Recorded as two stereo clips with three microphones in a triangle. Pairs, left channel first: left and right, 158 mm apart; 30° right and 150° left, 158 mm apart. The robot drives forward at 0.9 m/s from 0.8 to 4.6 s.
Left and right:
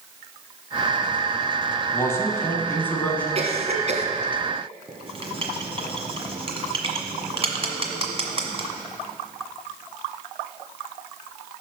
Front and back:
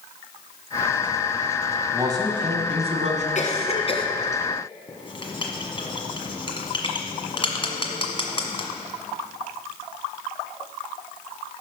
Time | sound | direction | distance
1.9 | a man speaking | 125° left | 1.3 m
3.4 | a cough | 50° right | 1.9 m
4.9 | writing | 65° right | 1.5 m